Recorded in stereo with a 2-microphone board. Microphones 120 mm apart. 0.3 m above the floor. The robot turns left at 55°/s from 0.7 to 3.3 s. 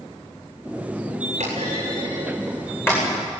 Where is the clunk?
65° right (ahead or behind), 9.5 m; by 3.0 s 25° left (ahead or behind), 9.5 m.